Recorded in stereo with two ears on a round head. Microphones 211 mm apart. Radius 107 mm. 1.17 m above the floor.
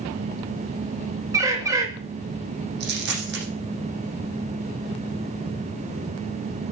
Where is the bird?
15° right (ahead or behind), 2 m.